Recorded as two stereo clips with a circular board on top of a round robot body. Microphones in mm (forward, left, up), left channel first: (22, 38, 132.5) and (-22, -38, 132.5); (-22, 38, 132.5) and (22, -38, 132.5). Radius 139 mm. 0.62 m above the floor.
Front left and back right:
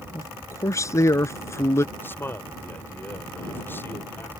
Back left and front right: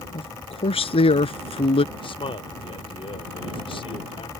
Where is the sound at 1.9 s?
125° left.